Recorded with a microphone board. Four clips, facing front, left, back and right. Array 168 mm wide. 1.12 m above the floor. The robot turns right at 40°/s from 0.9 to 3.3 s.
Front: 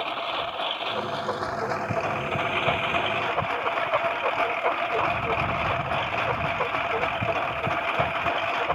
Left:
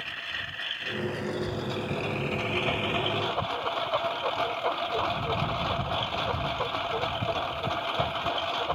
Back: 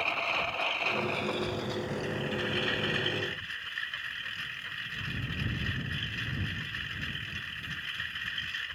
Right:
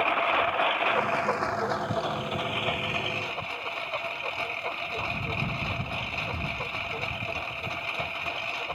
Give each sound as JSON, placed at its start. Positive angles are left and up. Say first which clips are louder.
{"t": 0.0, "sound": "a lawn mower", "louder": "right 15 dB, front 4 dB", "azimuth_deg": -75}